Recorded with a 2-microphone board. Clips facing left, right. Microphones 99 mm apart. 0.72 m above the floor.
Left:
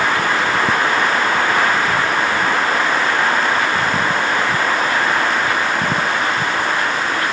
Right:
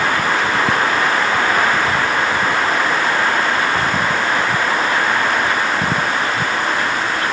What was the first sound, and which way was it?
Only background noise.